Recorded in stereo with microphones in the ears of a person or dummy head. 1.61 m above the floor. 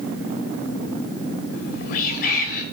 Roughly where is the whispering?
Left.